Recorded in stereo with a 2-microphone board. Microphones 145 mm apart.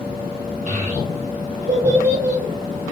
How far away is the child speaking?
About 0.8 m.